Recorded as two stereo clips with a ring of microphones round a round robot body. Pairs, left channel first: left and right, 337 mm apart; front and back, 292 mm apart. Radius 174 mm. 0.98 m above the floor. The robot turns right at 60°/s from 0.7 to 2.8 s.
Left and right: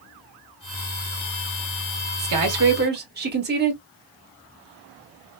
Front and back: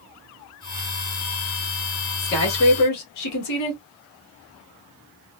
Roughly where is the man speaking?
Ahead right.